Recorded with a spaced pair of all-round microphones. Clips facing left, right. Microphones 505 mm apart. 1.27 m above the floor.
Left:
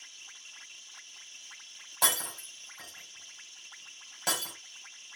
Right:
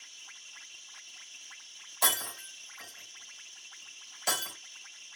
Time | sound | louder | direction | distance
2.0 | breaking glass | even | 70° left (ahead or behind) | 3.5 m